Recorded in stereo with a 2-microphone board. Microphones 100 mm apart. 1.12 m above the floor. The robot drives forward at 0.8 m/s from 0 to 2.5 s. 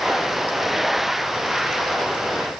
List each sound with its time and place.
Only background noise.